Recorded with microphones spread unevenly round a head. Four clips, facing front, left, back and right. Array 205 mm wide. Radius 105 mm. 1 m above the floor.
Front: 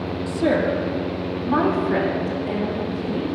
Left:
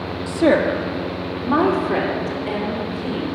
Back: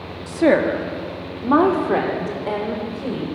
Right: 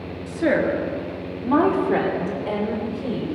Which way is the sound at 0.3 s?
140° left.